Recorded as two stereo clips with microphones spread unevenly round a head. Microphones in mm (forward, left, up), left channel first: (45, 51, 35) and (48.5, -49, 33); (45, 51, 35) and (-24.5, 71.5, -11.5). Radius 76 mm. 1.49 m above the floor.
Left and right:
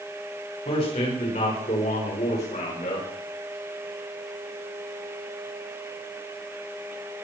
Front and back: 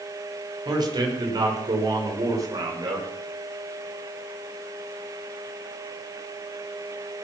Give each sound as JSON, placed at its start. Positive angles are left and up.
{"t": 0.7, "sound": "a man speaking", "azimuth_deg": 140, "distance_m": 6.0}